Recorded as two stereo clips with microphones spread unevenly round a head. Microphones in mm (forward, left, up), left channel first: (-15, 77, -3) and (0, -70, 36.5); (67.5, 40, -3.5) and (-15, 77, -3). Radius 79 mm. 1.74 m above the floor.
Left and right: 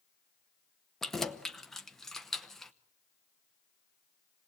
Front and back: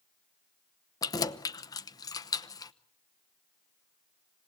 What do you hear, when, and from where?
1.0 s keys jangling: 10° right, 0.9 m